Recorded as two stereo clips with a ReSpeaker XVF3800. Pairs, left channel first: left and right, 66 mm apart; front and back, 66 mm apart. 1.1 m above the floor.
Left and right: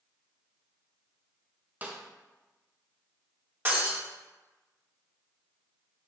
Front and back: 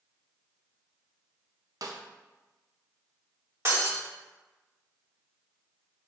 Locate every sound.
1.8 s a snare drum: 155° right, 0.5 m
3.6 s breaking glass: 145° right, 1.4 m